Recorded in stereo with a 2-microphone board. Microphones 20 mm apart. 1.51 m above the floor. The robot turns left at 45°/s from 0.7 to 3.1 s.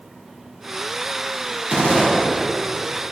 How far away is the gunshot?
About 6.5 m.